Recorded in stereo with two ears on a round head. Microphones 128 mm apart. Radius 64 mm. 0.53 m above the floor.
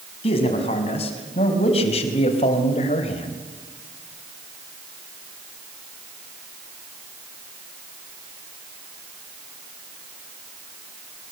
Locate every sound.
0.2 s a man speaking: 45° left (ahead or behind), 5 m